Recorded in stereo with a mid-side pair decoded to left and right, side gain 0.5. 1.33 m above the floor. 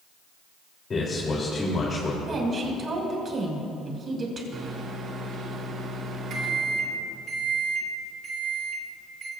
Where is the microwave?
55° right, 2.5 m.